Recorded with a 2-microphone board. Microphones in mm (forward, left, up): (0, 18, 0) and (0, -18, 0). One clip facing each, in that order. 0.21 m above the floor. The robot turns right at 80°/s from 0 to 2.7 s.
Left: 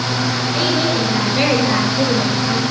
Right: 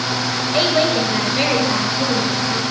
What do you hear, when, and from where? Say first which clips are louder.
0.5 s a woman speaking: right 3 dB; 45° right, 4 m; by 2.6 s 120° left, 4 m